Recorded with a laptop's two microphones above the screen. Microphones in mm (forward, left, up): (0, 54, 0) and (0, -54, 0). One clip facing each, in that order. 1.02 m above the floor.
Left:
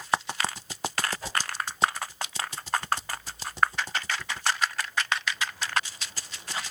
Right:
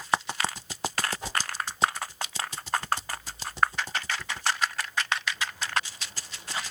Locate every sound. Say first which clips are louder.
1.2 s a whoosh: even; 20° right (ahead or behind), 1.6 m